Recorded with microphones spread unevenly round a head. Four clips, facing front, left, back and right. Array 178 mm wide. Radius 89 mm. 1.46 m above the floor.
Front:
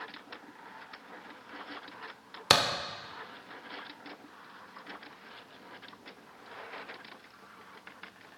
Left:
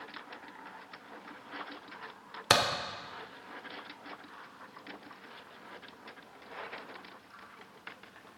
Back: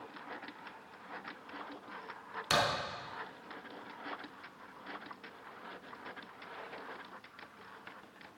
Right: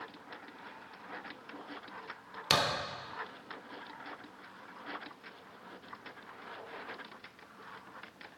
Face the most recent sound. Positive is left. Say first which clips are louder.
# left 3 dB, front 4 dB
turn(degrees=15)